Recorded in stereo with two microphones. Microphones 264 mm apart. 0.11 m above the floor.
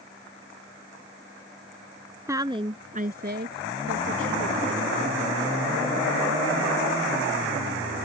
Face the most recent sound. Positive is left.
turn(degrees=-55)  # may be behind; listen again after turning